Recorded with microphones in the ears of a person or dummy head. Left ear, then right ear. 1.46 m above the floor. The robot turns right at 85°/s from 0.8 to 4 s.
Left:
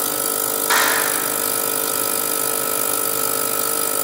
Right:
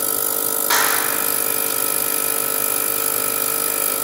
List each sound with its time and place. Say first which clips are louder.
0.7 s a clap: left 1 dB; straight behind, 5 m; by 1.2 s 145° right, 5 m